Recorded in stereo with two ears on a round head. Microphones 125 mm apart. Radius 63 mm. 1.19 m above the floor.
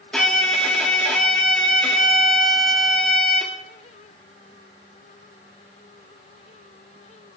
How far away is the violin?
About 2.0 m.